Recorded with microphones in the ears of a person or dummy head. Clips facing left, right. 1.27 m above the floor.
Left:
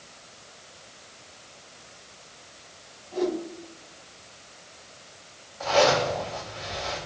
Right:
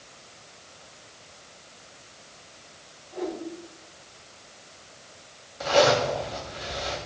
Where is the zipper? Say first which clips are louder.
Right 1 dB; 30° right (ahead or behind), 2.5 m.